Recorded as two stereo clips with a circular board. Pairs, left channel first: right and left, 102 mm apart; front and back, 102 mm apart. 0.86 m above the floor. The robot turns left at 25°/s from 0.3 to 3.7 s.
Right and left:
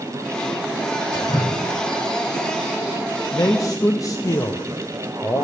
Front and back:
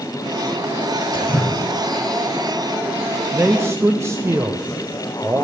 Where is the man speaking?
120° right, 0.6 m; by 5.5 s 130° right, 0.6 m.